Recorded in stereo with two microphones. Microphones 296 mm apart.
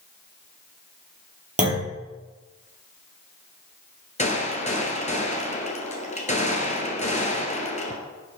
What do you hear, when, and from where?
1.6 s a clunk: 25° right (ahead or behind), 3 m
4.2 s a gunshot: 25° left (ahead or behind), 1.2 m